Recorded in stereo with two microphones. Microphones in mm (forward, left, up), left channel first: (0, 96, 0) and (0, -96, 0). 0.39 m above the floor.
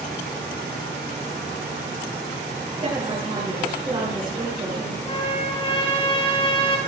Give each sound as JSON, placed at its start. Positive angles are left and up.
{"t": 2.8, "sound": "a woman speaking", "side_deg": -25, "distance_m": 8.0}
{"t": 5.0, "sound": "a trumpet", "side_deg": 30, "distance_m": 2.5}